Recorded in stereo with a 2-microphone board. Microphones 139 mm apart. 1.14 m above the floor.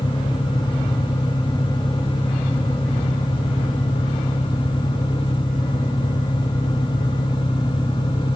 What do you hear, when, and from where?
0.0 s an engine running: 35° left (ahead or behind)